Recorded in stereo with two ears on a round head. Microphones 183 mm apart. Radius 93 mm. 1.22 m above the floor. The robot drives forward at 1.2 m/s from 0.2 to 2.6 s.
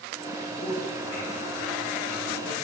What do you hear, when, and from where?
0.4 s a man speaking: 30° left (ahead or behind), 5 m; by 2.5 s 55° left (ahead or behind), 3.5 m